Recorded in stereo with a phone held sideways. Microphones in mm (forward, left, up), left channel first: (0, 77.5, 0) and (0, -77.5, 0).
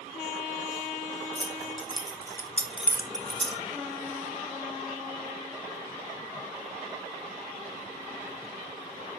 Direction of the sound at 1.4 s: 40° left (ahead or behind).